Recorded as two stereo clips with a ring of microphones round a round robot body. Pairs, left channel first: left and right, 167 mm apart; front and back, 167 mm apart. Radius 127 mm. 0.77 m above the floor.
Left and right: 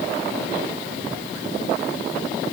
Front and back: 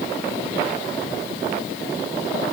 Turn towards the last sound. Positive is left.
No sound to turn to.